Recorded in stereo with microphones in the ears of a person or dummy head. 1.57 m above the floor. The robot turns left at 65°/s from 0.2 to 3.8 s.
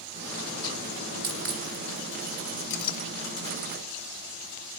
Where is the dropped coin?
40° right (ahead or behind), 2 m; by 1.6 s 55° right (ahead or behind), 2 m.